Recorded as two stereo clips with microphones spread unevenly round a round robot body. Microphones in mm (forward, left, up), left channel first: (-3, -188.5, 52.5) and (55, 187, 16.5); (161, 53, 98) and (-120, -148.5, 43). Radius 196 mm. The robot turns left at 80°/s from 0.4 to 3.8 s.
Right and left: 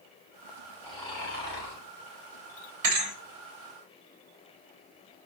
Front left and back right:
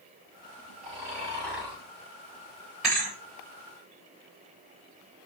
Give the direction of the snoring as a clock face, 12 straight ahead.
6 o'clock.